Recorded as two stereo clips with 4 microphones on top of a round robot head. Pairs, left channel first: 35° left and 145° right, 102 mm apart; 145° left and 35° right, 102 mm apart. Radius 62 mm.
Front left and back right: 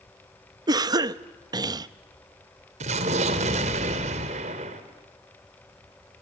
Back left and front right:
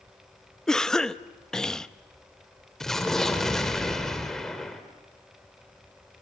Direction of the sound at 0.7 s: 135° right.